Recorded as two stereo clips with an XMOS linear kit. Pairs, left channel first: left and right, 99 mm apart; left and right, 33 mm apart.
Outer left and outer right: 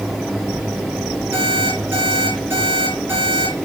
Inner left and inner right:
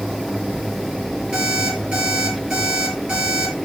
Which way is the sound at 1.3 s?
25° right (ahead or behind).